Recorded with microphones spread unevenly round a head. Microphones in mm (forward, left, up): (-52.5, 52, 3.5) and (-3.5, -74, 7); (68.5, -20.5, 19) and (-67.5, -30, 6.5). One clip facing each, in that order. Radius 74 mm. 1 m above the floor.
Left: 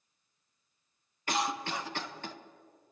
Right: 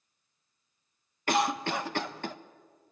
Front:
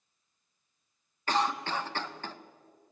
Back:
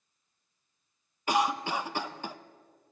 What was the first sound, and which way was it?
A cough, 100° right.